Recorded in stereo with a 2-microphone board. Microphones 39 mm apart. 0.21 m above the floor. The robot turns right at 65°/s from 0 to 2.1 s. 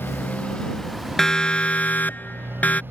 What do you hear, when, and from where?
0.0 s a motorcycle: 65° left (ahead or behind); by 2.9 s 60° right (ahead or behind)
1.2 s a siren: 10° left (ahead or behind); by 2.8 s 40° left (ahead or behind)